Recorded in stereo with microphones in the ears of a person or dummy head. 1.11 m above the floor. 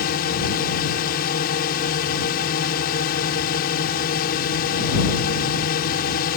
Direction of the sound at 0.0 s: 55° left (ahead or behind).